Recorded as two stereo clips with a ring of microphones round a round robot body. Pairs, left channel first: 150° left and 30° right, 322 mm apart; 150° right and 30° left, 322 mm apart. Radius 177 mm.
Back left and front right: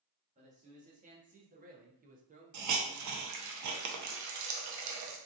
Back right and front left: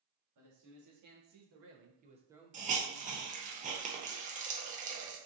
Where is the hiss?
30° right, 0.7 m.